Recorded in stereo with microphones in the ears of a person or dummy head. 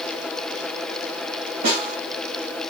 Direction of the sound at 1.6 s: 40° right (ahead or behind).